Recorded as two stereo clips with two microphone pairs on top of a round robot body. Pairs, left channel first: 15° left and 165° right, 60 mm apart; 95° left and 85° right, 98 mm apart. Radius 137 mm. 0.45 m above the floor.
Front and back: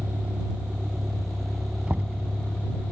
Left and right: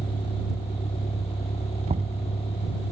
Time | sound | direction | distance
0.0 | a vehicle | 130° left | ?
1.9 | knocking | 95° right | ?